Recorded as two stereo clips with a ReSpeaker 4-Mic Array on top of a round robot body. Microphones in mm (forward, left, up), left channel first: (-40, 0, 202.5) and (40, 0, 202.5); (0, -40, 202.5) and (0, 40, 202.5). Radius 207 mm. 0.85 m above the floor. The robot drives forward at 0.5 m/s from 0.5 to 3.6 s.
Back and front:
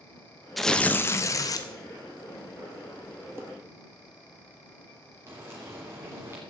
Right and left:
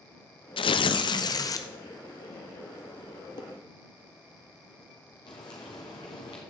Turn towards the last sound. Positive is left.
turn(degrees=-65)